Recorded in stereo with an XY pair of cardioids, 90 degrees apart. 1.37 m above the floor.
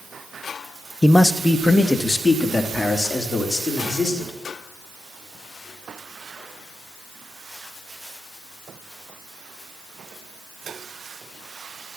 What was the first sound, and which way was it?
A man speaking, 10° left.